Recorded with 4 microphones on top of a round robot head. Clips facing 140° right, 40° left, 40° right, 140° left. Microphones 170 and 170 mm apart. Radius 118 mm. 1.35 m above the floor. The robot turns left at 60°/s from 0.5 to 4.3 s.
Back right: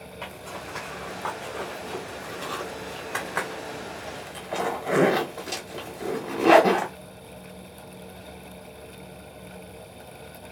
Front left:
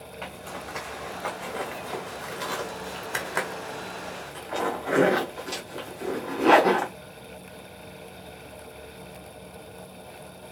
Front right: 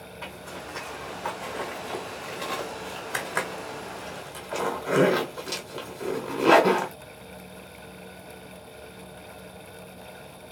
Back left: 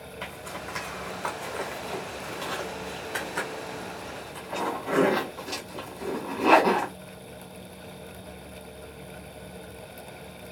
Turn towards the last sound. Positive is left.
turn(degrees=-75)